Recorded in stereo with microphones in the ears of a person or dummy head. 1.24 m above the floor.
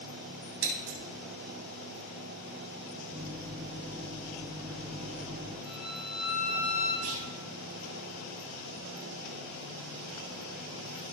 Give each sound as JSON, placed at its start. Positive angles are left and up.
{"t": 0.6, "sound": "scissors", "side_deg": -70, "distance_m": 2.5}
{"t": 3.1, "sound": "a microwave", "side_deg": -55, "distance_m": 2.5}
{"t": 5.7, "sound": "a violin", "side_deg": 0, "distance_m": 3.5}
{"t": 7.0, "sound": "a clunk", "side_deg": -85, "distance_m": 3.5}